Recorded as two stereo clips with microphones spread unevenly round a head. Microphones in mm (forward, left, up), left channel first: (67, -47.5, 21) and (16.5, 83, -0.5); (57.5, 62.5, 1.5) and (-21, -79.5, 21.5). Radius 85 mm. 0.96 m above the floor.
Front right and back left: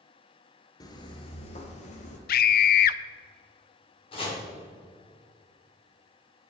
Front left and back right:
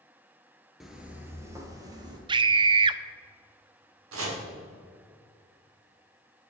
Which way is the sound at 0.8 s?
40° right.